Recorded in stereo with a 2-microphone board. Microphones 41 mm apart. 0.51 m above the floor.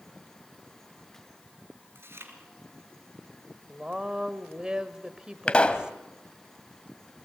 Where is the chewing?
65° right (ahead or behind), 3.5 m.